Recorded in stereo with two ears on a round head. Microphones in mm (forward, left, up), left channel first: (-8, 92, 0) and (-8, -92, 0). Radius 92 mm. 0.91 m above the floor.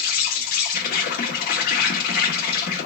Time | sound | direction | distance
0.0 | an insect | 45° left (ahead or behind) | 1.0 m